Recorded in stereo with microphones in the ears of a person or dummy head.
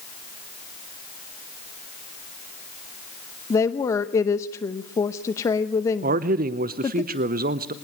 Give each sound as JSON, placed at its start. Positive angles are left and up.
{"t": 3.5, "sound": "a woman speaking", "side_deg": 20, "distance_m": 0.8}
{"t": 6.0, "sound": "a man speaking", "side_deg": -45, "distance_m": 0.7}